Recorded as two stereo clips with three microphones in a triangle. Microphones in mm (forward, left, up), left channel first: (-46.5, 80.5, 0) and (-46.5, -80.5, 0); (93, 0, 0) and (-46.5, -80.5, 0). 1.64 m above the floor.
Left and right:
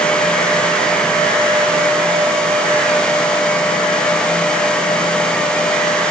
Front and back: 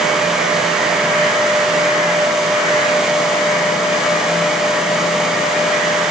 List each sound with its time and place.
Only background noise.